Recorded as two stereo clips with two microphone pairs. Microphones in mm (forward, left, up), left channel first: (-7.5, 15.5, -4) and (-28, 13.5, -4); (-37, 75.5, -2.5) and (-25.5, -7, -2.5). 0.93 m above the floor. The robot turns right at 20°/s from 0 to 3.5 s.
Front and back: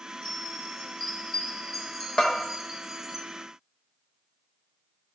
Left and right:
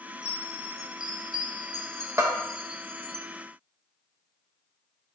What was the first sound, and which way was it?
A chime, 55° left.